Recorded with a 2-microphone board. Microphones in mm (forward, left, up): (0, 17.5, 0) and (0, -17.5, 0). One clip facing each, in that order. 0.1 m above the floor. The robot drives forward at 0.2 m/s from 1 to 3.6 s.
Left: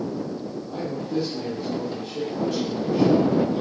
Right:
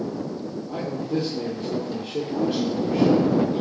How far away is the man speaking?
About 2.5 m.